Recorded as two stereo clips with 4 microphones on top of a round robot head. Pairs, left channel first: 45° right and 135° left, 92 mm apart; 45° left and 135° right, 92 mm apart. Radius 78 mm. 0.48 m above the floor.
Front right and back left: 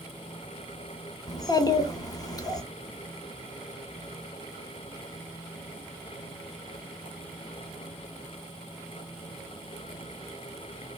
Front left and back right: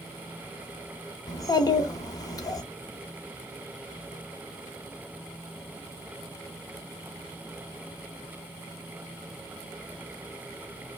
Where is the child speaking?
Straight ahead, 1.0 m.